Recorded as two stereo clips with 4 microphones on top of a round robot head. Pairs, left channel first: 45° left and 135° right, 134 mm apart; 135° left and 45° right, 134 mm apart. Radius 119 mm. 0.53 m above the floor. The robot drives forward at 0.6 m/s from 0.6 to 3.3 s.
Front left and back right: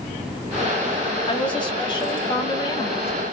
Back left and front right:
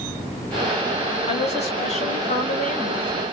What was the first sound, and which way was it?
A woman speaking, 95° left.